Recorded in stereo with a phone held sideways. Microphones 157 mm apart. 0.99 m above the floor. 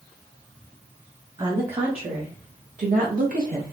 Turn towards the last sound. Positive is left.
turn(degrees=-65)  # may be behind; listen again after turning